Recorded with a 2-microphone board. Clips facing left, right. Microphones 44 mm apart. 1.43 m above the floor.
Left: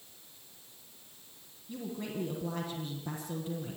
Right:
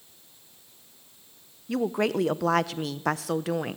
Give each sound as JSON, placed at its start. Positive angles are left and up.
{"t": 1.7, "sound": "a woman speaking", "side_deg": -90, "distance_m": 1.0}